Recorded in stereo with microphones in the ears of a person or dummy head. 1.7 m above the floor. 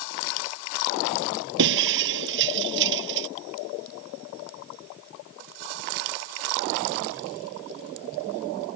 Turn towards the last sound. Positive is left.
turn(degrees=-60)  # may be behind; listen again after turning